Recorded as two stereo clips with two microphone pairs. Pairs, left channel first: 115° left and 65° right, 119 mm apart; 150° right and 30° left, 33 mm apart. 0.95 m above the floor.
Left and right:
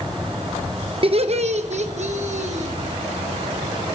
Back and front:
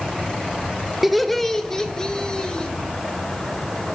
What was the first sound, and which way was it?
Laughter, 50° right.